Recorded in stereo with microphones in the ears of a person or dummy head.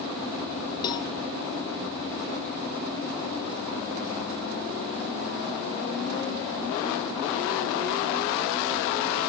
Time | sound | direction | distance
0.8 | a cowbell | 25° left (ahead or behind) | 0.8 m